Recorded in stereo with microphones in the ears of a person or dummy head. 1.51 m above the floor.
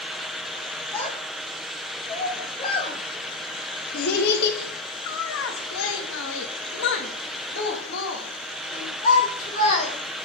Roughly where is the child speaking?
Centre.